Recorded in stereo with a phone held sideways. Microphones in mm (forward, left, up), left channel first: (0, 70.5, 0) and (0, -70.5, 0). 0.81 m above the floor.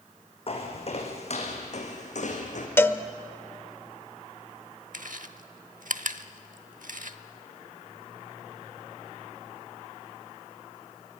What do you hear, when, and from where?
0.5 s footsteps: 45° left (ahead or behind), 3.5 m; by 2.7 s 60° left (ahead or behind), 3.5 m
2.8 s a cowbell: 15° left (ahead or behind), 0.9 m
4.9 s chewing: 70° right (ahead or behind), 0.9 m